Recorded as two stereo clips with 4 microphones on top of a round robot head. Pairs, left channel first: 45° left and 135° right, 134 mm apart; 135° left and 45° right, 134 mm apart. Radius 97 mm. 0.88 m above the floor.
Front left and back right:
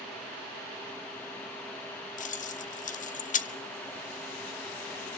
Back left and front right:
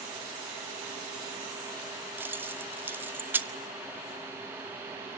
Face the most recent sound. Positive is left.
turn(degrees=30)